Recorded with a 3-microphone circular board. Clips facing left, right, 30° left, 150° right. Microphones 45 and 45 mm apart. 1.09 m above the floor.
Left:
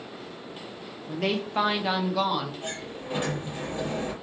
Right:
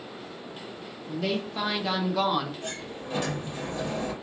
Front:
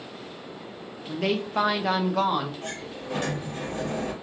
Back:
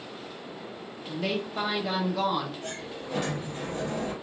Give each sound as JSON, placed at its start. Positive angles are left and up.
{"t": 1.1, "sound": "a woman speaking", "azimuth_deg": 65, "distance_m": 0.8}
{"t": 2.6, "sound": "a sliding door", "azimuth_deg": 30, "distance_m": 1.4}